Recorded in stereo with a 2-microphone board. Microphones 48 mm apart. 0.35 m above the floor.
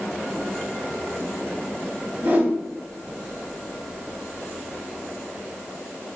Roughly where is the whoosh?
Right.